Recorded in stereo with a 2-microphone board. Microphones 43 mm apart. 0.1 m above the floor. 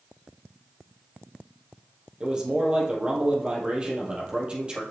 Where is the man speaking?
25° right (ahead or behind), 3 m.